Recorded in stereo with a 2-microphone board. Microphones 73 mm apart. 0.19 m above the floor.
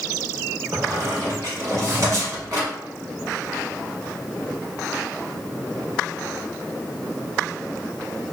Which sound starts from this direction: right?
A squeak, at 0.7 s.